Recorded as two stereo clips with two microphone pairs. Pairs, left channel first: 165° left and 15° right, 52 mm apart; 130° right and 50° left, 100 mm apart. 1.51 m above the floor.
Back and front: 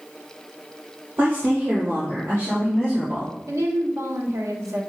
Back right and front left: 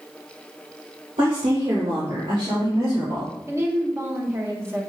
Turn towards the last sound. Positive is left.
turn(degrees=-10)